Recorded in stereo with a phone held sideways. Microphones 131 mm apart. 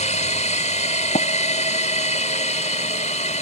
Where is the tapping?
65° left (ahead or behind).